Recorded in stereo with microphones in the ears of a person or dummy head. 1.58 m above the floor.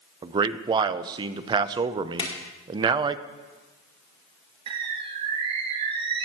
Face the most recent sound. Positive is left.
turn(degrees=-30)  # may be behind; listen again after turning